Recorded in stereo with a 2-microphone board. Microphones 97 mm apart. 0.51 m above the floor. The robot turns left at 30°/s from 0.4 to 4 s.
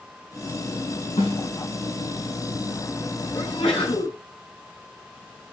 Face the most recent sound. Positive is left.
turn(degrees=70)  # may be behind; listen again after turning